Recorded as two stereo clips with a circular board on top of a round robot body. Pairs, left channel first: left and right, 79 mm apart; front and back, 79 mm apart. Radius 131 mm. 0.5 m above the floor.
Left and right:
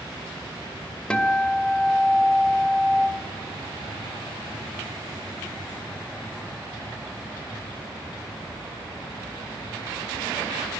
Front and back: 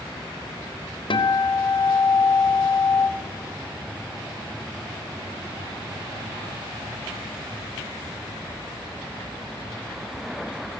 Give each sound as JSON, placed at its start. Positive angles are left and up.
{"t": 1.1, "sound": "a guitar", "azimuth_deg": 10, "distance_m": 2.0}